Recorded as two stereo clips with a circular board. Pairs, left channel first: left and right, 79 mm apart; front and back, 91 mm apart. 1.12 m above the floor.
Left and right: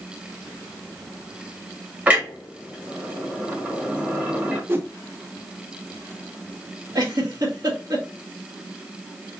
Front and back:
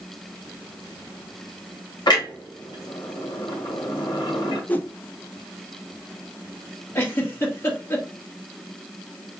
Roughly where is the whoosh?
Ahead right.